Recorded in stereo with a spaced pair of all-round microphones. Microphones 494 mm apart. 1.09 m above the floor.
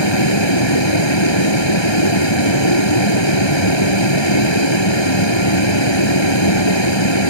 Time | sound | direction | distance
0.0 | a vehicle | 60° left (ahead or behind) | ?